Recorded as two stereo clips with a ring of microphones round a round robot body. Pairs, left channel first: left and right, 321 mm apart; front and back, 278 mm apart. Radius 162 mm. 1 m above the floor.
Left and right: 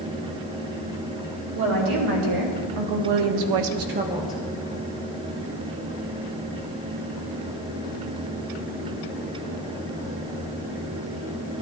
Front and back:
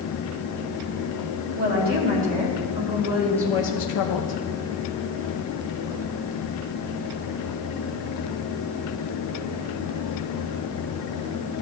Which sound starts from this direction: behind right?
A woman speaking, at 1.6 s.